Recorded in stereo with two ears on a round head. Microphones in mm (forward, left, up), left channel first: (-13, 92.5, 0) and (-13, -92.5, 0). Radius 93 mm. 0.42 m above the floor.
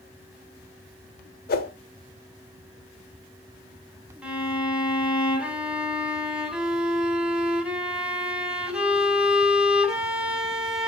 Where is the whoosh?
45° left (ahead or behind), 1.1 m.